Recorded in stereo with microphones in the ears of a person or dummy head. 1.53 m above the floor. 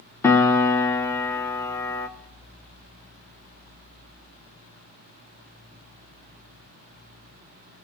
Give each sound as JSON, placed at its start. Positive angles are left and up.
{"t": 0.2, "sound": "a piano", "side_deg": 20, "distance_m": 0.8}